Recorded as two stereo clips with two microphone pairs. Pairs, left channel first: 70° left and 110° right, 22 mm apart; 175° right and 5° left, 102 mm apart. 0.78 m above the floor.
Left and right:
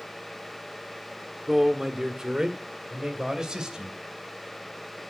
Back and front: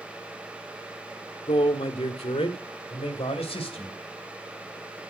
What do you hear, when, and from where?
1.5 s a man speaking: 175° right, 1.5 m; by 4.0 s 160° right, 3 m